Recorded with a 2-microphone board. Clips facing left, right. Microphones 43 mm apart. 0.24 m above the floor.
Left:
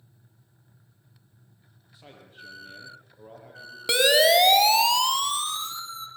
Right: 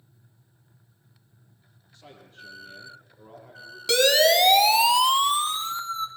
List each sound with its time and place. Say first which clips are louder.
1.9 s a man speaking: even; 15° left (ahead or behind), 8 m
3.9 s a siren: even; 20° left (ahead or behind), 2.5 m; by 6.1 s 40° right (ahead or behind), 3 m